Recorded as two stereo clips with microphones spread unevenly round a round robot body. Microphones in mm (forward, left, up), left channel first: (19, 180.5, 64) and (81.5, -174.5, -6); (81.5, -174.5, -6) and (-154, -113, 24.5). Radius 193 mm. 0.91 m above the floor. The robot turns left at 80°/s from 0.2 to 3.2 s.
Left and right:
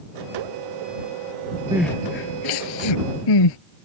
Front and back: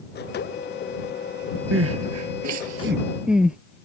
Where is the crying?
160° right; by 3.6 s 80° left.